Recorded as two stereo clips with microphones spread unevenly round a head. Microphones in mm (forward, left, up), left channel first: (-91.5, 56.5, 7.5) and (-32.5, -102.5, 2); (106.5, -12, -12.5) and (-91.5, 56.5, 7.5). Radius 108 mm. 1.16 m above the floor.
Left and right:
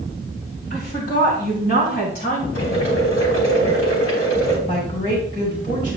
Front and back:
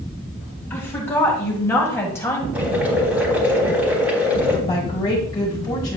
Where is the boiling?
80° left, 3.5 m.